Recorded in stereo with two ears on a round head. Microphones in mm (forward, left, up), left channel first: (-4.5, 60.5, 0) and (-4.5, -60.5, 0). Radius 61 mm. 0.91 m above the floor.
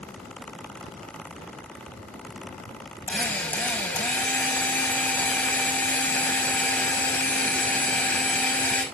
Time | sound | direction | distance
3.1 | a drill | 15° left (ahead or behind) | 5.5 m